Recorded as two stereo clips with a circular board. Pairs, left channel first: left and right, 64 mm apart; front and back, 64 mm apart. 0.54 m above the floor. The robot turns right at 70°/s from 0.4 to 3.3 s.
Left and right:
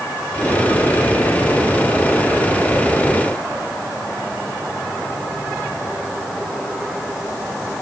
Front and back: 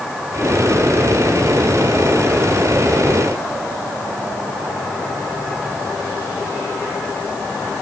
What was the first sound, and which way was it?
Only background noise.